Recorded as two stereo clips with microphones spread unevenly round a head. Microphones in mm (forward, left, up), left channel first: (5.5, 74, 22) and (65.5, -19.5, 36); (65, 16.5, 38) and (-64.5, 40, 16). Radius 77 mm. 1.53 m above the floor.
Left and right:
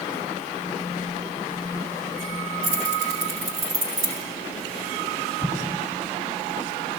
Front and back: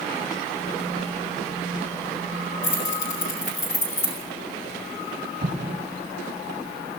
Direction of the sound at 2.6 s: 55° right.